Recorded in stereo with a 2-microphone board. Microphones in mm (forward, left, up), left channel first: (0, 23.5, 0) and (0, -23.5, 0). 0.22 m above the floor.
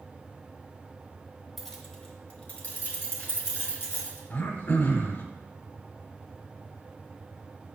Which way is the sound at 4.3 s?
60° left (ahead or behind).